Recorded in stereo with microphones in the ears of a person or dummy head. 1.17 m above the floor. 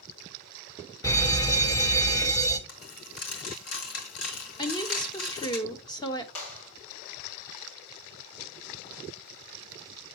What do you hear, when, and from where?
1.0 s an alarm: 15° left (ahead or behind), 0.8 m
2.7 s a dropped coin: 70° left (ahead or behind), 2.5 m
4.6 s a woman speaking: 20° left (ahead or behind), 0.8 m
6.3 s a clap: 85° left, 3 m